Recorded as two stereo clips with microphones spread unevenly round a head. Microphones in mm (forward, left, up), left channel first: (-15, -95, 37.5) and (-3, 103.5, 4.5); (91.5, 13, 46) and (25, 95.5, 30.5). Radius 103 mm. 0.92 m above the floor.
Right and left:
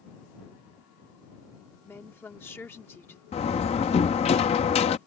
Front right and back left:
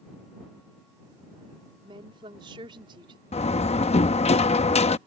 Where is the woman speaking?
175° right.